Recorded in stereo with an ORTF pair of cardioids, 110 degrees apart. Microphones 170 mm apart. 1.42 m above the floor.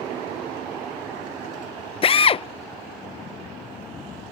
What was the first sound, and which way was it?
A drill, 35° left.